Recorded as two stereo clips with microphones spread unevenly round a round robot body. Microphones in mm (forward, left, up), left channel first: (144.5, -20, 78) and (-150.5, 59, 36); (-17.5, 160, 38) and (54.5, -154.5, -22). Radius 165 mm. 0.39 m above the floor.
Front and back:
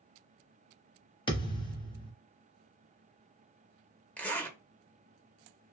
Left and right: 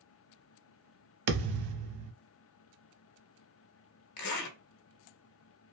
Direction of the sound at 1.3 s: 90° right.